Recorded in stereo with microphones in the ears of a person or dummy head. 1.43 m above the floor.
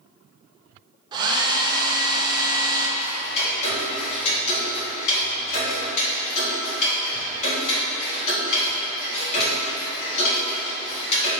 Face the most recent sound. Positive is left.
turn(degrees=40)  # may be behind; listen again after turning